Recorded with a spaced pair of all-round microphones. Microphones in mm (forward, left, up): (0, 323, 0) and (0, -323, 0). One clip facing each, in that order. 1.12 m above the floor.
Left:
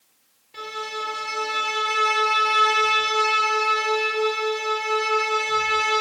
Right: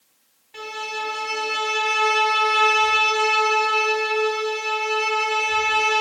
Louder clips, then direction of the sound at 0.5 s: Even; 20° right (ahead or behind).